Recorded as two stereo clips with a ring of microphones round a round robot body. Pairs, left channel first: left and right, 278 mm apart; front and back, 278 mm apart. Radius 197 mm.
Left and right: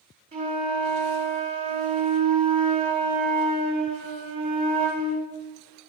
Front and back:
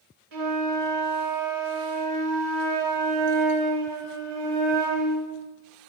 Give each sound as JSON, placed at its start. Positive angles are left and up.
{"t": 0.3, "sound": "a flute", "azimuth_deg": -160, "distance_m": 1.6}